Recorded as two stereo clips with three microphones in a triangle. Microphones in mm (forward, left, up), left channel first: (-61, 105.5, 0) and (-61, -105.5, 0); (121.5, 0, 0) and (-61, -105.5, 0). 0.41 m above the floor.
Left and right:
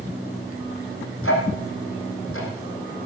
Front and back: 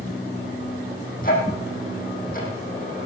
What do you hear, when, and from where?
1.2 s ticking: 80° left, 5.5 m